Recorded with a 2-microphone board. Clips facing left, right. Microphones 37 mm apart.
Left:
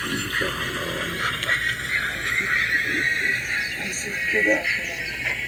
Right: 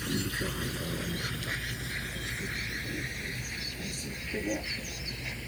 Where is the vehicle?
60° left (ahead or behind); by 5.5 s 80° left.